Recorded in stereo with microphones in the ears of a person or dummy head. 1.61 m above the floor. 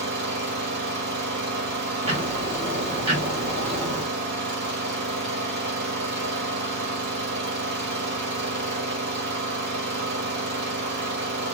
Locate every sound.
0.0 s an engine running: 60° right (ahead or behind), 1.6 m
2.0 s ticking: 30° right (ahead or behind), 1.2 m